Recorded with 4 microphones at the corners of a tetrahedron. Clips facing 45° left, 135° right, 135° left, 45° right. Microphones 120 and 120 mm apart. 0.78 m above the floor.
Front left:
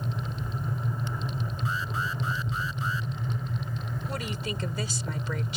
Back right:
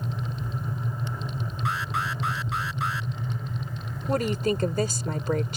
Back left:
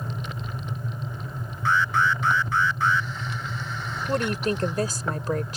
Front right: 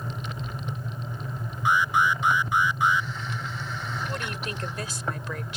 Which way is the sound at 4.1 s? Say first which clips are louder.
Back right 12 dB, back left 9 dB; 175° right.